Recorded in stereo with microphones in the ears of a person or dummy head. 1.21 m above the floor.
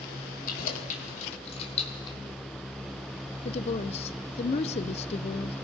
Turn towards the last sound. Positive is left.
turn(degrees=40)  # may be behind; listen again after turning